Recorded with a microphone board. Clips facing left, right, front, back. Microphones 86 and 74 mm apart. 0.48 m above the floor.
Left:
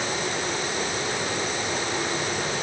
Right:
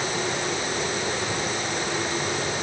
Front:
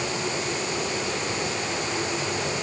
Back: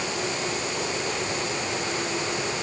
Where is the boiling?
No boiling in this recording.